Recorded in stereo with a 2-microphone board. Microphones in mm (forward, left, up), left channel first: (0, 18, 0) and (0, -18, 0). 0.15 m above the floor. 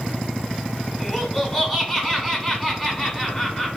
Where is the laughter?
Centre (ahead or behind), 1.4 m.